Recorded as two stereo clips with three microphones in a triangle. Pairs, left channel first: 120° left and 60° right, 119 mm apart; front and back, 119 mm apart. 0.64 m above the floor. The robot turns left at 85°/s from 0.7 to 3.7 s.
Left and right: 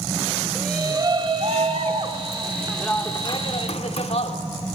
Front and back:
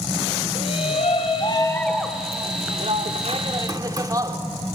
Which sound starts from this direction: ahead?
A shout, at 0.6 s.